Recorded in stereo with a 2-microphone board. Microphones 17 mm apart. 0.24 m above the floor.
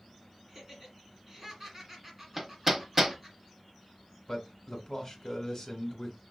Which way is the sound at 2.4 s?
15° right (ahead or behind).